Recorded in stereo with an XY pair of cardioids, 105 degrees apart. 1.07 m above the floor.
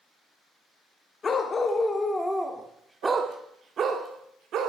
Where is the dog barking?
35° left, 1.3 m; by 4.7 s 75° right, 1.5 m.